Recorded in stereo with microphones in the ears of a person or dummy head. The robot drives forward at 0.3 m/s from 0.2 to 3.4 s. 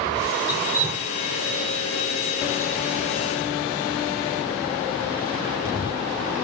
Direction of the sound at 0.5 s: 10° right (ahead or behind).